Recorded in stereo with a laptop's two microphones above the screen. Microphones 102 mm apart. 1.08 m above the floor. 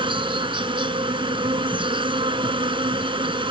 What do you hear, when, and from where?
0.0 s an insect: 55° right (ahead or behind)